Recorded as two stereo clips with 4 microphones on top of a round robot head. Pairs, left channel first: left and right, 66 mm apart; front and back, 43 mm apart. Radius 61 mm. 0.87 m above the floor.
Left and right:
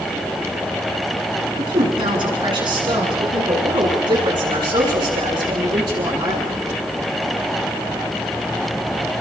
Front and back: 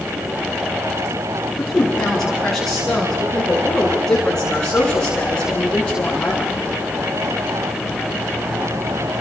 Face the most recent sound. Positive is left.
turn(degrees=-75)